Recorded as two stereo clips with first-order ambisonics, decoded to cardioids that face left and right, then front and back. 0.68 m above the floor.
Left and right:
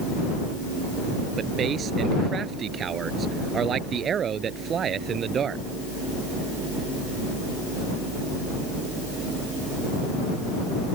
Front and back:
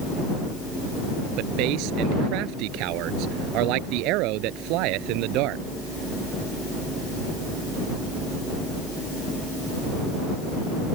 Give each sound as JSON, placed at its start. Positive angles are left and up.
{"t": 1.4, "sound": "a man speaking", "azimuth_deg": -150}